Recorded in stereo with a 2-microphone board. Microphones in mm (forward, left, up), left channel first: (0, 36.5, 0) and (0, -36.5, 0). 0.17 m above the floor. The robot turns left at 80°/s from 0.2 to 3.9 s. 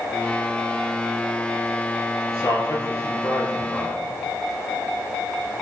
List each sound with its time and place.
2.3 s a man speaking: 50° left (ahead or behind), 2.5 m; by 4.0 s 5° right (ahead or behind), 2.5 m